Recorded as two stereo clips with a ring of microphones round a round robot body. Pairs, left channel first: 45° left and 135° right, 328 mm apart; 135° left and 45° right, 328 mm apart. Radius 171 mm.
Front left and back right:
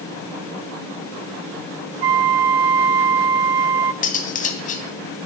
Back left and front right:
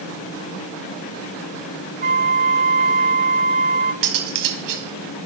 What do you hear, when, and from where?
2.0 s a flute: 115° right, 0.5 m
4.0 s cutlery clinking: 20° right, 1.7 m